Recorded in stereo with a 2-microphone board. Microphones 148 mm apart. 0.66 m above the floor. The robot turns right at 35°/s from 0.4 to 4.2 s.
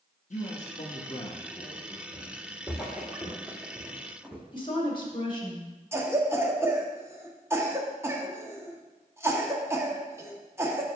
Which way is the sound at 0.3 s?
95° left.